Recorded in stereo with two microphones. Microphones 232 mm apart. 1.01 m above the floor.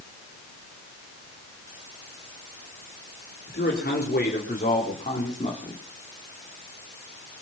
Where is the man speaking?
45° left (ahead or behind), 4 m; by 5.8 s 25° left (ahead or behind), 3.5 m.